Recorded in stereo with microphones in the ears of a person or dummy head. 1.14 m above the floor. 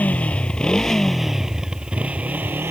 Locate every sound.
0.0 s a motorcycle: 10° left (ahead or behind); by 2.7 s 10° right (ahead or behind)